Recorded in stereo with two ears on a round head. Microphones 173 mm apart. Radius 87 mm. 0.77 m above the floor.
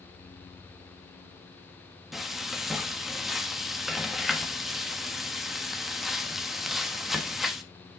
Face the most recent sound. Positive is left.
turn(degrees=0)  # may be behind; listen again after turning